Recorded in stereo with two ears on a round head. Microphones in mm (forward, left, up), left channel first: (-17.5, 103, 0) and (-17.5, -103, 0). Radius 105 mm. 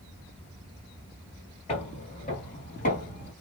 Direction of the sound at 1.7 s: 30° left (ahead or behind).